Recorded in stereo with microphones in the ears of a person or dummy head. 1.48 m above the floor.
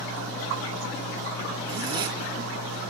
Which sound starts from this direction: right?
A zipper, at 1.7 s.